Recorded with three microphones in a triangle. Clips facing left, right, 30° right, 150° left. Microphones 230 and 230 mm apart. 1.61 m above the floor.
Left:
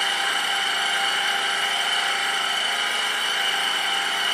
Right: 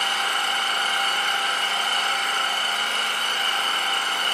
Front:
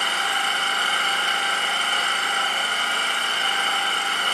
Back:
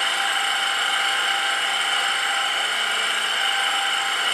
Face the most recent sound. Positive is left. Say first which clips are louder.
# even, front 1 dB
turn(degrees=10)